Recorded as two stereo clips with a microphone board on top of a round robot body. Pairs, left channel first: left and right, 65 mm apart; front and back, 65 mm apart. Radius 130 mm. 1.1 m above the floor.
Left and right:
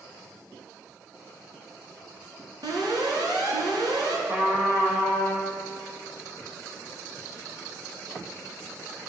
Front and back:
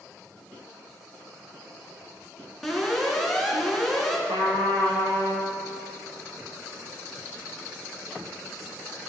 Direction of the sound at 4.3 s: 160° right.